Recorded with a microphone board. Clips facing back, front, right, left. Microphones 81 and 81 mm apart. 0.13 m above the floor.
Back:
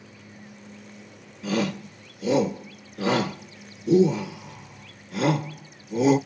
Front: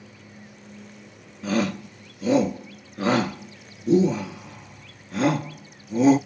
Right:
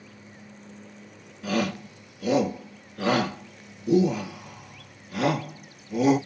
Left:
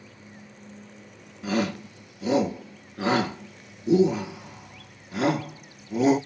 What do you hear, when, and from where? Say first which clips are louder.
1.4 s a shout: front 2 dB, even; 30° left, 1.5 m